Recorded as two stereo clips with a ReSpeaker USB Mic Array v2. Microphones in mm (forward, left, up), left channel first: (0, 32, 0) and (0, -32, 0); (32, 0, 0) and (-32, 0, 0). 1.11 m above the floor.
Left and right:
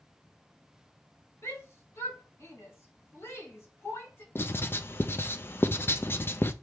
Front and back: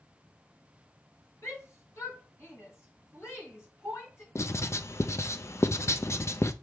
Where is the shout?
45° left, 4 m.